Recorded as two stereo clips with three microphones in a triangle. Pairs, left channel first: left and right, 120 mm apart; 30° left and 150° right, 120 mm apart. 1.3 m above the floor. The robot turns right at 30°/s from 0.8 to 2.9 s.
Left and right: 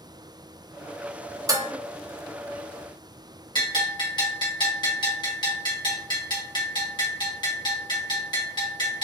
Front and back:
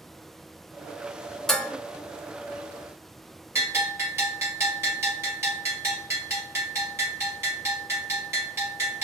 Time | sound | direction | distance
1.5 | dishes clattering | 55° right | 0.6 m
3.5 | a bell | 145° left | 1.5 m